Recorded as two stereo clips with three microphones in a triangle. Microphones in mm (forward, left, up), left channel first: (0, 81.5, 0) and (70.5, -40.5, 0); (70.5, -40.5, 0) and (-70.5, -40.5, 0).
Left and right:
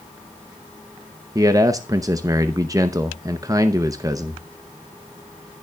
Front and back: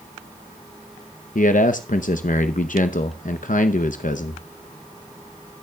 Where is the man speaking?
5° left, 0.7 m.